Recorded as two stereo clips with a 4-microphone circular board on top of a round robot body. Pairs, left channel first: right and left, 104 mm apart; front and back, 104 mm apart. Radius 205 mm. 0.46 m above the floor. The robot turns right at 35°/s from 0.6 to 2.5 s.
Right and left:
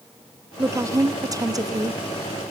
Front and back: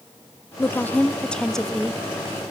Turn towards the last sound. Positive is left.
turn(degrees=115)